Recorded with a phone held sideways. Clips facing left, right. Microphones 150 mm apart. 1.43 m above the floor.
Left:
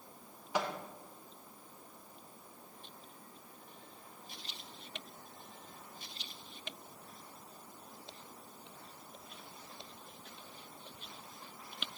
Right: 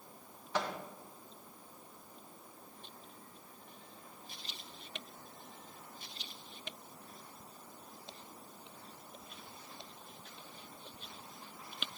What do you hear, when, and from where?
0.5 s a microwave: 10° left (ahead or behind), 1.1 m